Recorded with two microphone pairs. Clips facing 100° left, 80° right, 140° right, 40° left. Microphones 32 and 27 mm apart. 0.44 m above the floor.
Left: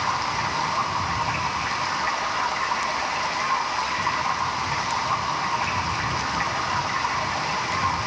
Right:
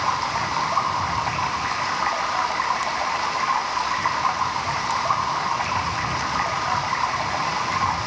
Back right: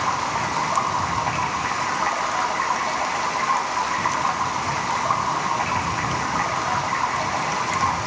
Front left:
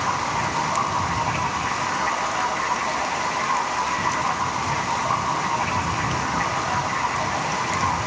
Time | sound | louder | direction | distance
0.0 | running water | right 1 dB, even | 90° right | 4 m